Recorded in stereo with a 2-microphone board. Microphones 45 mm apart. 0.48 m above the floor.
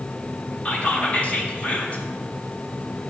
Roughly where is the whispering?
Left.